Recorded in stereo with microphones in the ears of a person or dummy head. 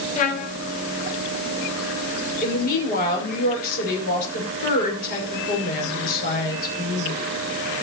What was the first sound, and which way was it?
A trumpet, 35° left (ahead or behind).